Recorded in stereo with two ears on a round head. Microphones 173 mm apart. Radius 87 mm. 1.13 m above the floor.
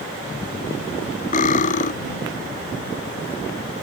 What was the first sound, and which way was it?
Cutlery clinking, 45° left (ahead or behind).